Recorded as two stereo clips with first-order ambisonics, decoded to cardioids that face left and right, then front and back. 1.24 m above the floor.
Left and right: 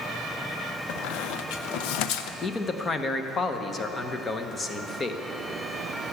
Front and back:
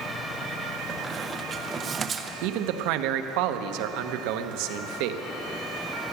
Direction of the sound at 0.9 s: 110° left.